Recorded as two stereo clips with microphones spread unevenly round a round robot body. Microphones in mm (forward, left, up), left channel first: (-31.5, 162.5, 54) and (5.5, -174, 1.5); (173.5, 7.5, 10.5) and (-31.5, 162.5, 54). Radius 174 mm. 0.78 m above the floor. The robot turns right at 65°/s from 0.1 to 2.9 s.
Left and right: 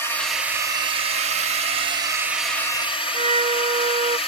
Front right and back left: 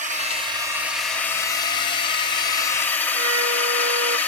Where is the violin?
160° right.